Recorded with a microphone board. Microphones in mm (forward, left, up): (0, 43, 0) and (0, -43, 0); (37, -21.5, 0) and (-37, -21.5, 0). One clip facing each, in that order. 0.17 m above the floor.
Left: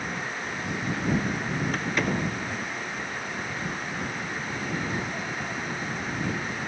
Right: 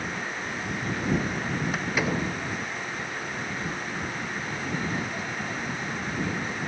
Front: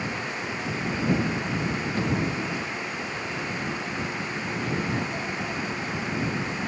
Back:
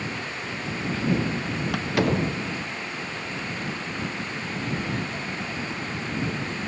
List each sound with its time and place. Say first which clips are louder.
1.7 s a door slam: even, back 7 dB; 175° right